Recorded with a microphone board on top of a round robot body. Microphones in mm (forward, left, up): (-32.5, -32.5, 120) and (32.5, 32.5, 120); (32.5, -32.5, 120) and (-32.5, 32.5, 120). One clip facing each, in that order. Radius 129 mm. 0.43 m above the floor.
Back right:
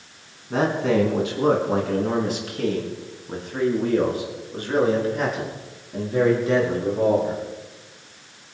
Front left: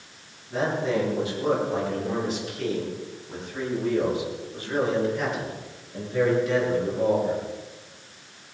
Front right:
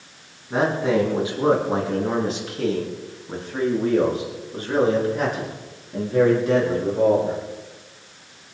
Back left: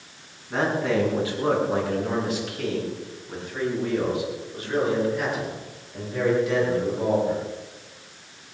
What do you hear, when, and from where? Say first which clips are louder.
0.5 s a man speaking: back right 4 dB, front right 3 dB; 120° right, 5 m; by 7.4 s 85° right, 8.5 m